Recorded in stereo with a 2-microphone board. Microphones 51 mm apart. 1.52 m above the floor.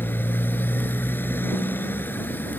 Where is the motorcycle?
45° left (ahead or behind).